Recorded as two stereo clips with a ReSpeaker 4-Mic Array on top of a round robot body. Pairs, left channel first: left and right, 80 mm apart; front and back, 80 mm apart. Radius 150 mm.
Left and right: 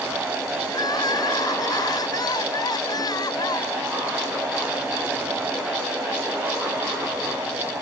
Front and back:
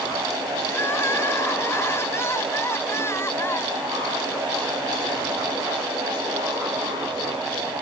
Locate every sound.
0.7 s crying: 55° left